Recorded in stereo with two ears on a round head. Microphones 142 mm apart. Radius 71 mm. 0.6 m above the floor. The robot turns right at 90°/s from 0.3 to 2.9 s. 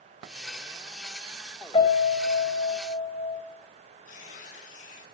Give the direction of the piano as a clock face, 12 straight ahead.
11 o'clock.